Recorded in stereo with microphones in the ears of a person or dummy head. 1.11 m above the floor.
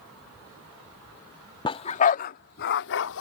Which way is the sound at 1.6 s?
25° left (ahead or behind).